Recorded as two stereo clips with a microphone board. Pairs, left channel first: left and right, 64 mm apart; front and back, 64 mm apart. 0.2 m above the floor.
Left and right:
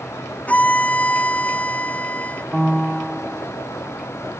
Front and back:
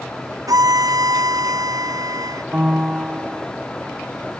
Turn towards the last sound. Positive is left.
turn(degrees=180)